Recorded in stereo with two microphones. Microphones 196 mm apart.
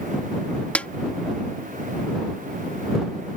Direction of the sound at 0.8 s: 5° left (ahead or behind).